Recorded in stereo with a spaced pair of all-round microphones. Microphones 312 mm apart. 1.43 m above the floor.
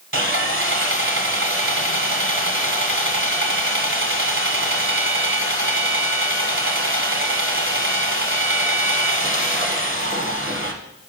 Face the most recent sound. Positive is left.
turn(degrees=-40)  # may be behind; listen again after turning